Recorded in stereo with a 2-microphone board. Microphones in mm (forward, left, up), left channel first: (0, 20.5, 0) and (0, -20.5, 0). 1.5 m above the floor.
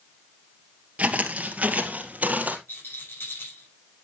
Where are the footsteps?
30° right (ahead or behind), 1.7 m; by 2.6 s 35° right (ahead or behind), 2 m.